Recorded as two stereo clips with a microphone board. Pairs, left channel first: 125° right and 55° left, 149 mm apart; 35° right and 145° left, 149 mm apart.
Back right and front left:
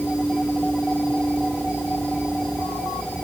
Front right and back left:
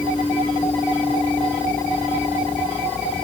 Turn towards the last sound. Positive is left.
No sound to turn to.